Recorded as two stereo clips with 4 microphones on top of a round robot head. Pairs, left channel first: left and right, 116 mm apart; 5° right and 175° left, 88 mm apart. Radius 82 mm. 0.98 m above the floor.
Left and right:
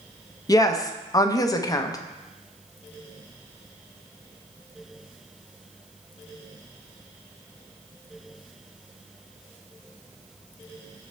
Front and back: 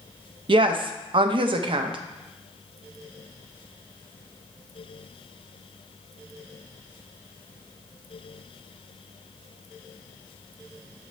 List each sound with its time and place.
0.5 s a woman speaking: 150° left, 0.5 m